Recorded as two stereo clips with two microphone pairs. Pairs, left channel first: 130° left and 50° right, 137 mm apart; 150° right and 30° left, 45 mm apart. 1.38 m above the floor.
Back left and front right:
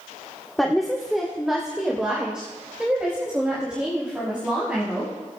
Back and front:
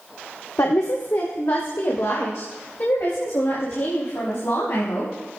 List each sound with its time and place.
0.6 s a woman speaking: 140° right, 1.0 m; by 5.1 s 130° right, 4 m